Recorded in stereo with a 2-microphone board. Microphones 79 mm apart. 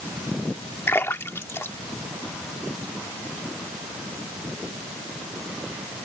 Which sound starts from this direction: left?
A splash, at 0.9 s.